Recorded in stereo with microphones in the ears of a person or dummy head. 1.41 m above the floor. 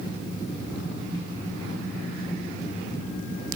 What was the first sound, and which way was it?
Only background noise.